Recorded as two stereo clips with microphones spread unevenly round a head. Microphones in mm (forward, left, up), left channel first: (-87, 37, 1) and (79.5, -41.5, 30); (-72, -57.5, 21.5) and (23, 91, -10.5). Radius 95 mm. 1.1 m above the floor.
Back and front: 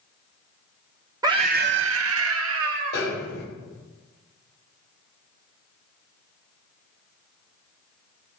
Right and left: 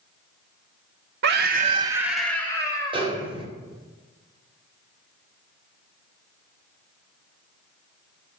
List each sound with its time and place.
1.2 s a scream: 50° left, 1.1 m; by 3.1 s 50° right, 2.5 m
2.9 s a snare drum: 120° left, 3.5 m